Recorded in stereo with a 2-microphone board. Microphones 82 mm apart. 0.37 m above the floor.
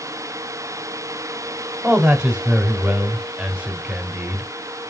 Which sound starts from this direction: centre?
A man speaking, at 1.8 s.